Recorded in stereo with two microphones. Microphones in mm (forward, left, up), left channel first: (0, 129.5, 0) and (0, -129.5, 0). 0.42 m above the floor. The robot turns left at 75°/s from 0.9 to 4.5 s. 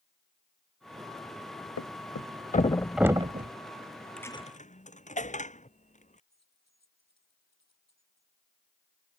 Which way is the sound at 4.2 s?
5° left (ahead or behind).